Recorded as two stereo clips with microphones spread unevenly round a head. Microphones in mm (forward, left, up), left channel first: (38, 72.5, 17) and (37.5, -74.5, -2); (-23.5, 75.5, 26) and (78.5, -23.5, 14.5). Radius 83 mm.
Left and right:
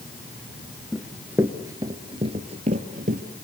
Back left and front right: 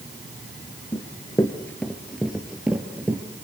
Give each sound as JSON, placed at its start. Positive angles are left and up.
{"t": 0.9, "sound": "running footsteps", "azimuth_deg": 165, "distance_m": 1.8}